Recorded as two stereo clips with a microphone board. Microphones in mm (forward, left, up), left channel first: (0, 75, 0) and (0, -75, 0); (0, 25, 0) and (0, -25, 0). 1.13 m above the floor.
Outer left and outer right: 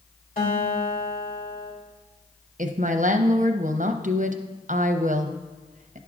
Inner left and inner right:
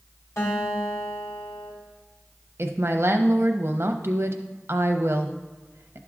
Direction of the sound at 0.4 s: 70° left (ahead or behind).